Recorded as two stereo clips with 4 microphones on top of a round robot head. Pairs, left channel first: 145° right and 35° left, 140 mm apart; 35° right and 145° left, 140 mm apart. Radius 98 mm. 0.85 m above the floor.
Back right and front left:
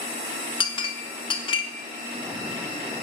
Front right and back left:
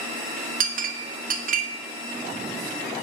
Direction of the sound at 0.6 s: 160° left.